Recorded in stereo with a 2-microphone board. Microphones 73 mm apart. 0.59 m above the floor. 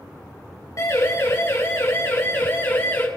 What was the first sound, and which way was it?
A siren, 50° left (ahead or behind).